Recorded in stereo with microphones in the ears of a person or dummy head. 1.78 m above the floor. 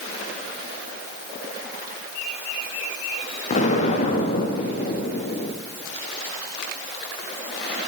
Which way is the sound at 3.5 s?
40° left (ahead or behind).